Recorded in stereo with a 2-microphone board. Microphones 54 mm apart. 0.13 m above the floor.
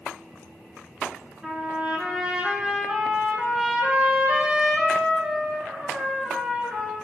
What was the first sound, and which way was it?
A trumpet, 15° right (ahead or behind).